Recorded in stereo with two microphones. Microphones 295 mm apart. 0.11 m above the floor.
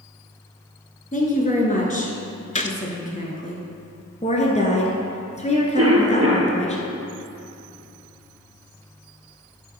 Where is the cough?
55° right (ahead or behind), 1.8 m.